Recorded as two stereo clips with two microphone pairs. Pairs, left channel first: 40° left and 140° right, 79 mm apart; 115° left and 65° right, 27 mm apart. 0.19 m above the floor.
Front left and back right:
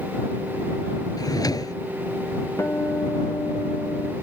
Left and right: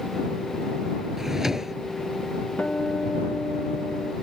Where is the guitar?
90° left.